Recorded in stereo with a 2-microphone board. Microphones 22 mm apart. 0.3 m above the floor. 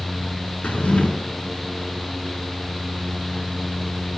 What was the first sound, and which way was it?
A drawer, 85° left.